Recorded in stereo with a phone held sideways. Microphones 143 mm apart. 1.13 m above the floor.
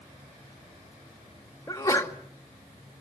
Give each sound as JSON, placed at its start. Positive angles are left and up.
{"t": 1.7, "sound": "a sneeze", "side_deg": 20, "distance_m": 2.0}